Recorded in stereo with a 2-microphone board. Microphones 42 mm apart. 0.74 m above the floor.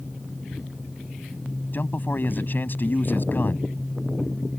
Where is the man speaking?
50° left (ahead or behind).